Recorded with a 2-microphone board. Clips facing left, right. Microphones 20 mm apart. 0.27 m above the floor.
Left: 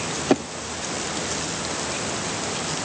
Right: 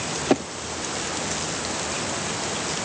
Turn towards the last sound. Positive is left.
No sound to turn to.